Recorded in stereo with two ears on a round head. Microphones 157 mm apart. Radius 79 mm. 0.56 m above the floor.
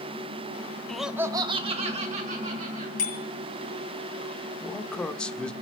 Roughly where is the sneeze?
I don't hear a sneeze.